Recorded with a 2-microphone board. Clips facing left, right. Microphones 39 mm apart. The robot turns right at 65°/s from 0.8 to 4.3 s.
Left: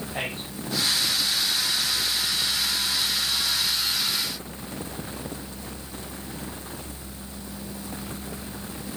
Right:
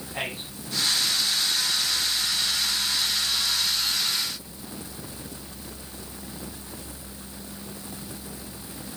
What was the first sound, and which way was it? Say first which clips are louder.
A man speaking: right 1 dB; 25° left (ahead or behind).